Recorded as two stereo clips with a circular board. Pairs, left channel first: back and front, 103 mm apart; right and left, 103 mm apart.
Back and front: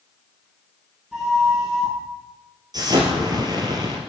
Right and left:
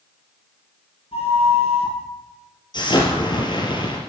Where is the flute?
85° right, 7 m.